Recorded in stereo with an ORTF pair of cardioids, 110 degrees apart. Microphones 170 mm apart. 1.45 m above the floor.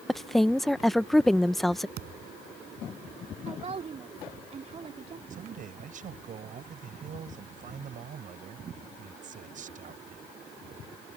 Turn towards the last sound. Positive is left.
turn(degrees=-50)